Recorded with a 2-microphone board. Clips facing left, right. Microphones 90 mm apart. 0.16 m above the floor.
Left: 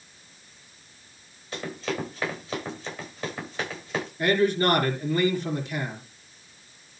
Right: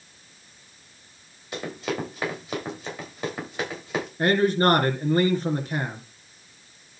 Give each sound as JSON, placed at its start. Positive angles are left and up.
{"t": 1.5, "sound": "running footsteps", "side_deg": -15, "distance_m": 8.0}
{"t": 4.2, "sound": "a man speaking", "side_deg": -45, "distance_m": 2.5}